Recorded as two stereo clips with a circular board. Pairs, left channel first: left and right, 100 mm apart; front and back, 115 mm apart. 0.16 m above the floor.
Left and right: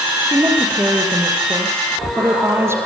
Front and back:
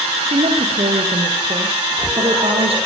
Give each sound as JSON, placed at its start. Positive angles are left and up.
{"t": 0.2, "sound": "a woman speaking", "azimuth_deg": -155, "distance_m": 5.5}